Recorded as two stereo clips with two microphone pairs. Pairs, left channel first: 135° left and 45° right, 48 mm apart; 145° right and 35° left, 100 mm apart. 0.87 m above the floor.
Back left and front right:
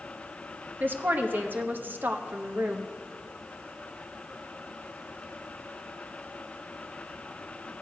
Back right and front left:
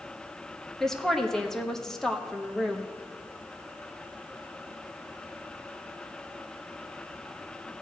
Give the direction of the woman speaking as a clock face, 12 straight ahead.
2 o'clock.